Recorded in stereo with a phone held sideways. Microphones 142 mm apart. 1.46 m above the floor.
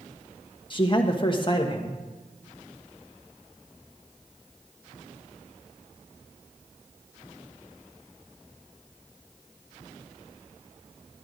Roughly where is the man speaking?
Left.